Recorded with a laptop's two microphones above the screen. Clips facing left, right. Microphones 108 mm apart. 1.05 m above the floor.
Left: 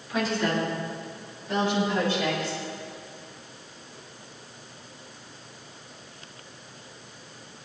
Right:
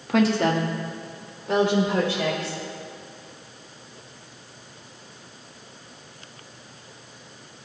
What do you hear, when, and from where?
0.1 s a woman speaking: 80° right, 1.7 m; by 2.6 s 85° right, 5 m